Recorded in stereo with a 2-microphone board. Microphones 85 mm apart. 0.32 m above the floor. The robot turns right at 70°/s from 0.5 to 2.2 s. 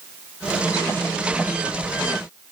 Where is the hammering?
I don't hear hammering.